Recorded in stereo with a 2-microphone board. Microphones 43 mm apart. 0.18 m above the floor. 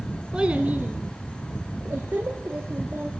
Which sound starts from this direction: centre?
A child speaking, at 0.3 s.